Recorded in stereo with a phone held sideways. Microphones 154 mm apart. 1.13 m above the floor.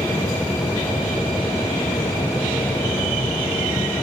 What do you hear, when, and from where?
0.0 s a machine running: 20° left (ahead or behind)